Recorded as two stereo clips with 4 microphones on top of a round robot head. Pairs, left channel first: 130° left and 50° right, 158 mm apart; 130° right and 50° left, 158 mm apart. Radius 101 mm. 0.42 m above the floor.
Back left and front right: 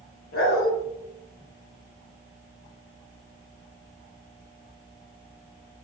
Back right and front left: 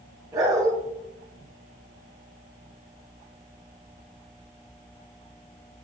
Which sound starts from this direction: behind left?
A dog barking, at 0.3 s.